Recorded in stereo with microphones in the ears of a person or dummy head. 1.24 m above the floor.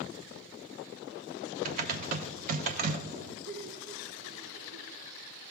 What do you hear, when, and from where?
1.6 s typing on a keyboard: 45° right (ahead or behind), 0.8 m
3.5 s laughter: 55° right (ahead or behind), 1.6 m